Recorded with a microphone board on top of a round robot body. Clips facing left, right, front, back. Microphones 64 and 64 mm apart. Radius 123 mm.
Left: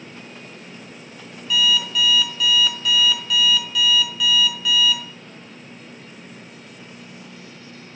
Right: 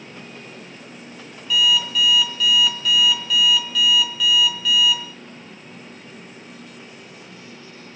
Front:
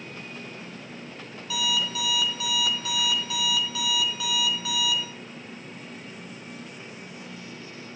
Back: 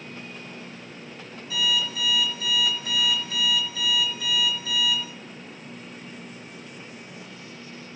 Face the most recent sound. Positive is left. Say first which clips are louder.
# right 1 dB, back 2 dB
turn(degrees=0)